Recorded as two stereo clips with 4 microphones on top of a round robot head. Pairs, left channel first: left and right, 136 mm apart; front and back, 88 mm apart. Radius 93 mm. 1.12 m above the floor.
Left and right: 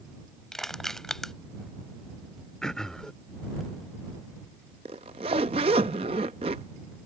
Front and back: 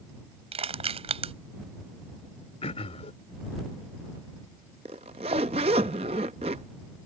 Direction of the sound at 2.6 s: 5° left.